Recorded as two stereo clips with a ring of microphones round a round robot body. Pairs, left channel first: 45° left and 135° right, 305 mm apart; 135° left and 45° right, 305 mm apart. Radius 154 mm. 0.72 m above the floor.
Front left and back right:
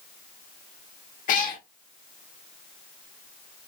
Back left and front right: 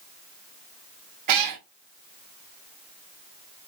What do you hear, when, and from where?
1.3 s a cat meowing: 20° right, 0.6 m